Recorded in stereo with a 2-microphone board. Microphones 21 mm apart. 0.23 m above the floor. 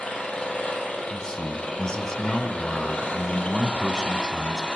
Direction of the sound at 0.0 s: 70° left (ahead or behind).